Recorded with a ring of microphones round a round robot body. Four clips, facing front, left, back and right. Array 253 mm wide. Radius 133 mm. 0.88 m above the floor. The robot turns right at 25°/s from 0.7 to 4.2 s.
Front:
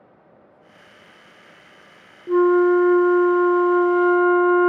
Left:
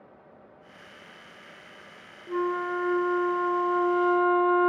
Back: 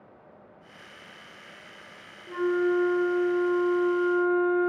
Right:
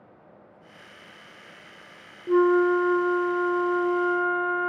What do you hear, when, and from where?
2.3 s a flute: 35° right, 0.5 m; by 4.7 s 10° left, 0.5 m